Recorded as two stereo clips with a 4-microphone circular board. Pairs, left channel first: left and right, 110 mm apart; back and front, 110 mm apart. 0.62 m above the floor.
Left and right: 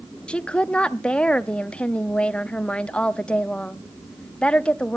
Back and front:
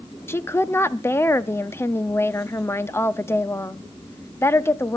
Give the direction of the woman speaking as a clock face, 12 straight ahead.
7 o'clock.